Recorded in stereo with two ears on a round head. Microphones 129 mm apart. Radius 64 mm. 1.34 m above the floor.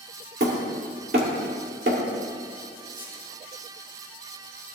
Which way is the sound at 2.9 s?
15° right (ahead or behind).